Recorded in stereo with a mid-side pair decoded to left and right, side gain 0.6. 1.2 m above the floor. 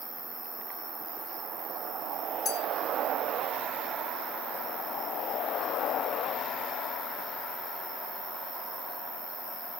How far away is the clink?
About 1.9 m.